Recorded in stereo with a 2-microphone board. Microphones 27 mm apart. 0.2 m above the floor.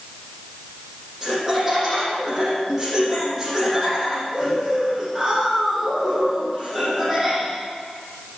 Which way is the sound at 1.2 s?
15° right (ahead or behind).